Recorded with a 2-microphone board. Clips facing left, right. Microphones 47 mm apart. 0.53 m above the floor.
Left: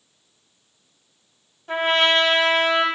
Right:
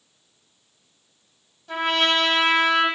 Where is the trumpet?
30° left (ahead or behind), 1.1 m.